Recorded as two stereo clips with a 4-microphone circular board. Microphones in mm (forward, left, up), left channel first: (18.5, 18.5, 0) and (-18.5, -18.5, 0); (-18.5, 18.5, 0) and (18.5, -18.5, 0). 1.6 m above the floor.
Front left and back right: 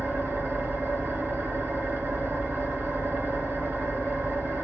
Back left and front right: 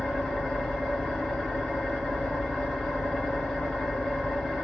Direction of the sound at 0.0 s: 145° right.